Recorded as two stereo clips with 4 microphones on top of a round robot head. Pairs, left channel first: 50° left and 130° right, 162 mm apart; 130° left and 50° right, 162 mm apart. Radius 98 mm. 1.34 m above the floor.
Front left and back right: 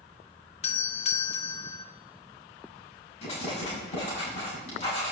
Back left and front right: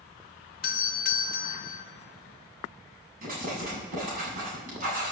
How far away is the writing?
About 7.5 m.